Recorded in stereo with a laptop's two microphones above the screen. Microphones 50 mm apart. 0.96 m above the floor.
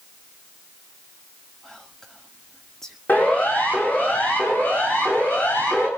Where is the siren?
35° left (ahead or behind), 8 m; by 5.9 s 45° left (ahead or behind), 9 m.